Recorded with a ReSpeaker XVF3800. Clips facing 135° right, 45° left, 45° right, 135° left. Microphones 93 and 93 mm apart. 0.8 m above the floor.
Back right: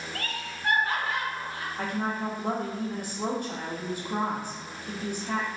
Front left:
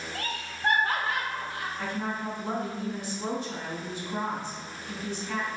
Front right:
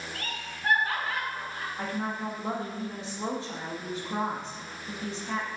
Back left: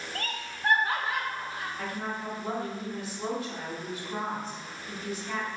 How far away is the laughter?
About 0.7 m.